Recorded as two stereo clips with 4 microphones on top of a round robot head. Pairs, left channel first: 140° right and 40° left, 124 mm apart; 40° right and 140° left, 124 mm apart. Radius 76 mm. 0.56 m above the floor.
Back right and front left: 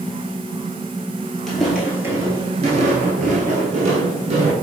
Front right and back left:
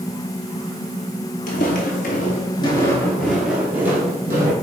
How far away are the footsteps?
About 0.9 m.